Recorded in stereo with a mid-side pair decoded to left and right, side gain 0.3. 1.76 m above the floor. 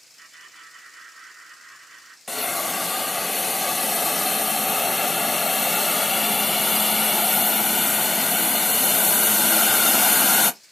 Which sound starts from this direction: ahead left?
A hiss, at 2.3 s.